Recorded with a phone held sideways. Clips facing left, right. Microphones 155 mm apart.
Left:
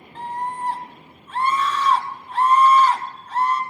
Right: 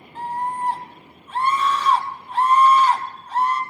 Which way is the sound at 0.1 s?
10° right (ahead or behind).